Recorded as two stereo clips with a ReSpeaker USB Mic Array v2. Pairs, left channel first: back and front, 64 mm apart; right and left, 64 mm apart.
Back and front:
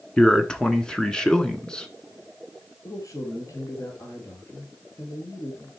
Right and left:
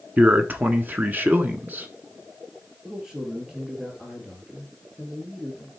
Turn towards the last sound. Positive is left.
turn(degrees=165)